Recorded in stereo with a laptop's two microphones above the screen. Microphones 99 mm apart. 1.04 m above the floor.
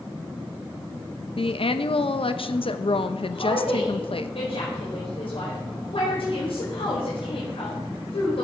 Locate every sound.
1.4 s a woman speaking: 70° left (ahead or behind), 0.9 m
3.3 s a woman speaking: 75° left (ahead or behind), 4.5 m